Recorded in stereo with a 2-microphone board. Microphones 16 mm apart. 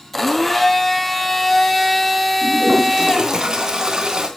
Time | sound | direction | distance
0.1 | a blender | 10° left (ahead or behind) | 1.8 m
2.4 | a toilet flushing | 45° right (ahead or behind) | 3.5 m